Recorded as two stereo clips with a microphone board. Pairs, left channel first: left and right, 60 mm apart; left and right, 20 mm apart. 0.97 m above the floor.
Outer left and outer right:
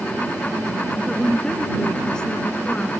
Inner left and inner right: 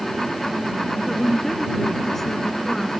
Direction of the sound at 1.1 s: 10° left (ahead or behind).